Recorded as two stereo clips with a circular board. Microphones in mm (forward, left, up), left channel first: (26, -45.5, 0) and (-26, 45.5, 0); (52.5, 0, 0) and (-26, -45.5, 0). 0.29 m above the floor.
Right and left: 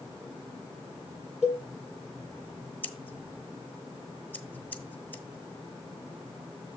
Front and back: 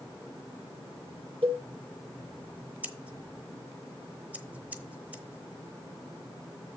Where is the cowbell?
155° right, 7 m.